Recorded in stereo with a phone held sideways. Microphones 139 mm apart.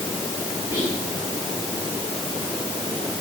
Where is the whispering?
30° left (ahead or behind), 3 m.